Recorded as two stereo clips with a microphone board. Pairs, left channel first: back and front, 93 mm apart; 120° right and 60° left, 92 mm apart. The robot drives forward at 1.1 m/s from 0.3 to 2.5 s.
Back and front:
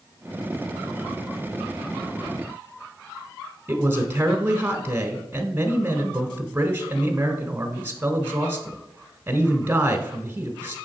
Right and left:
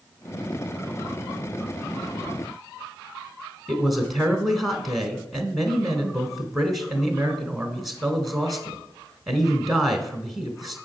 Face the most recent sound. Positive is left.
turn(degrees=-30)